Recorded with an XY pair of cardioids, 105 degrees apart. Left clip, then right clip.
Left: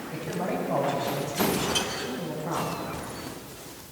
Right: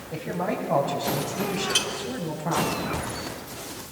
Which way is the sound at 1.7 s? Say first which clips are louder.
Right 3 dB; 50° right.